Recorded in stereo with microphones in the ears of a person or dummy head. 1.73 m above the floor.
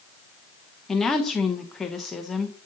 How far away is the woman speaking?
About 0.7 m.